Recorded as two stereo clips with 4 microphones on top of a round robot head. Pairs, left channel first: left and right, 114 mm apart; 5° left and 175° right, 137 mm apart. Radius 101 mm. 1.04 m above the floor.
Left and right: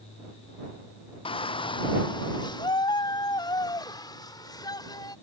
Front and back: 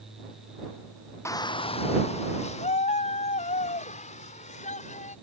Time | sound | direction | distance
1.2 | a shout | 70° left | ?